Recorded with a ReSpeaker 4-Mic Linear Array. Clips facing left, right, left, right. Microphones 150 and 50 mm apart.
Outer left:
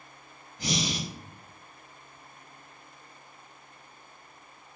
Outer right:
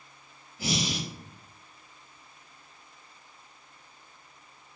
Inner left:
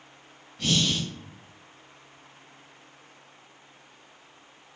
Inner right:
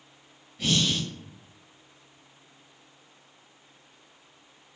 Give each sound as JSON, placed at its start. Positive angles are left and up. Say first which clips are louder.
{"t": 0.6, "sound": "breathing", "louder": "even, even", "side_deg": -5, "distance_m": 0.7}